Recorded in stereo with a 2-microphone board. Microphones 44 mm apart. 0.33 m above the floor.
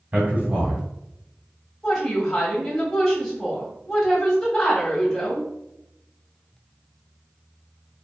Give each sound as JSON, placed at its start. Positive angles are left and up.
{"t": 0.1, "sound": "a man speaking", "side_deg": -35, "distance_m": 1.8}
{"t": 1.8, "sound": "a woman speaking", "side_deg": 15, "distance_m": 2.0}